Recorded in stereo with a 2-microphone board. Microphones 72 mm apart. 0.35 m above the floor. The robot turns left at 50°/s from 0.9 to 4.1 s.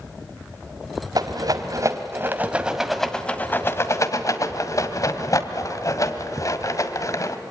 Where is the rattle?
65° right (ahead or behind), 1.4 m; by 7.4 s 50° left (ahead or behind), 1.4 m.